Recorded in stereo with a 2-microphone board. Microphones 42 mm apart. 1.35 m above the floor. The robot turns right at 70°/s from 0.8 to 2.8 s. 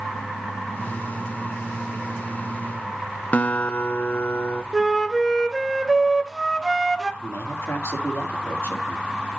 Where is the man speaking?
75° left (ahead or behind), 2 m.